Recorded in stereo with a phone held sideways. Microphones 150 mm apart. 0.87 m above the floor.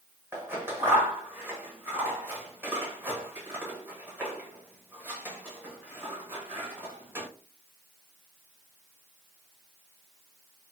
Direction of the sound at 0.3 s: 15° right (ahead or behind).